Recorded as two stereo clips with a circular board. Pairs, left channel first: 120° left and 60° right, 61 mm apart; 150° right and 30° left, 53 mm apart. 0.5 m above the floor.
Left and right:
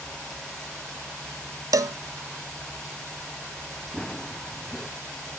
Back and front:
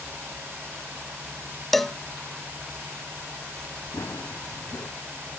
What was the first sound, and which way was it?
A cowbell, 65° right.